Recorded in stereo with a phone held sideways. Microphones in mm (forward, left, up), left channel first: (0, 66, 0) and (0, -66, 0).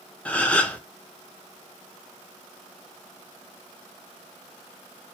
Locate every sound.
0.2 s a gasp: 10° left (ahead or behind), 0.6 m